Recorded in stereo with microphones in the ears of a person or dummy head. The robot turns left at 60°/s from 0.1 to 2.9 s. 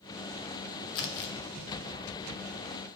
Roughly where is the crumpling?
Left.